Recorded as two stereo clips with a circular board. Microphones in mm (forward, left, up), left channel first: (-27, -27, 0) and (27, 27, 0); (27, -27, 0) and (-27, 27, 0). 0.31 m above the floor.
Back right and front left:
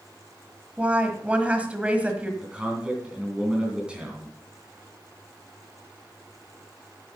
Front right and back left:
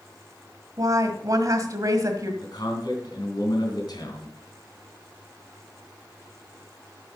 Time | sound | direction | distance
0.8 | a woman speaking | 115° left | 1.5 m
2.4 | a man speaking | 30° right | 3 m